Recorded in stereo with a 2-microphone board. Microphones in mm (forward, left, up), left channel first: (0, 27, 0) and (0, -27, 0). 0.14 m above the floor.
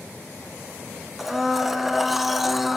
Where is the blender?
5° right (ahead or behind), 0.6 m.